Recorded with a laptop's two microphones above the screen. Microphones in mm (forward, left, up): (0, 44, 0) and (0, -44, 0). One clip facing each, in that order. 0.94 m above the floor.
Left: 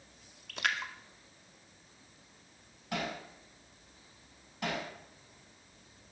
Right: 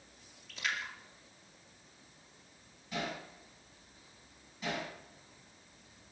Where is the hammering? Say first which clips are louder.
Left 2 dB; 65° left (ahead or behind), 7 m.